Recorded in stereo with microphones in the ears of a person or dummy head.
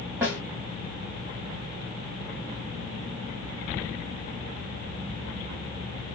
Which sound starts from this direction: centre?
A snare drum, at 0.2 s.